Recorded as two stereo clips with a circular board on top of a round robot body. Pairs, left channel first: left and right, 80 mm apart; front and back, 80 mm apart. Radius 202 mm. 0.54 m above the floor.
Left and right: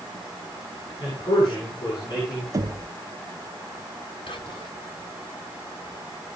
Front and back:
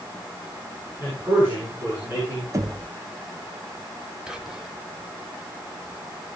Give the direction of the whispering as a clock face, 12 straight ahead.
9 o'clock.